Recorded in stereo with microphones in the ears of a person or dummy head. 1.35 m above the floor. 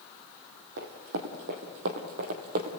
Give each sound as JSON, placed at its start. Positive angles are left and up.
{"t": 0.8, "sound": "running footsteps", "side_deg": -60, "distance_m": 2.5}